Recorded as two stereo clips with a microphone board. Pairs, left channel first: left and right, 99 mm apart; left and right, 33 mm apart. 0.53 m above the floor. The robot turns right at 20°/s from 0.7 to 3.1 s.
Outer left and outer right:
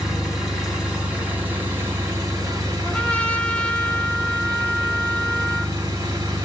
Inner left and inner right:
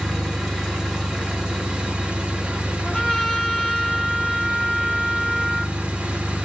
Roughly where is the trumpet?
Centre.